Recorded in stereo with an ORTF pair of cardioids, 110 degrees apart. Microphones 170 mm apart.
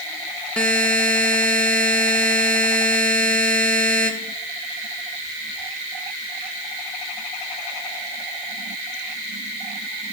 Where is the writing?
No writing in this recording.